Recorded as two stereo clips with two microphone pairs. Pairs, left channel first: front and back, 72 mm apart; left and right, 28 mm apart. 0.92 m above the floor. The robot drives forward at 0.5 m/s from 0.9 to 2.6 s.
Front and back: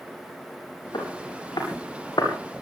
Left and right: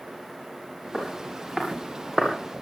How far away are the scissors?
No scissors in this recording.